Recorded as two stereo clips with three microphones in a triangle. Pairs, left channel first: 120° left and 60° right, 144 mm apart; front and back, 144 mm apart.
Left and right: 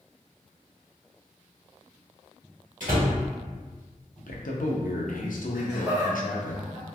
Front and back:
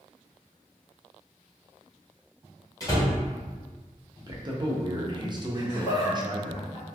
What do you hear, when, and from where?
2.8 s a door slam: 65° right, 1.1 m
4.2 s a man speaking: 125° left, 0.6 m
5.5 s laughter: 5° left, 1.5 m